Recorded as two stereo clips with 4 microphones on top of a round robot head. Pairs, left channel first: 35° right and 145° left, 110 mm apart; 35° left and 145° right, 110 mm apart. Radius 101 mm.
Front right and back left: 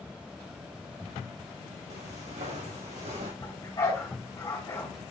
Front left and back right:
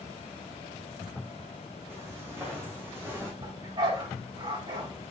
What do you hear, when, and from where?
1.9 s footsteps: 150° left, 3.5 m
3.4 s a dog barking: 95° right, 4 m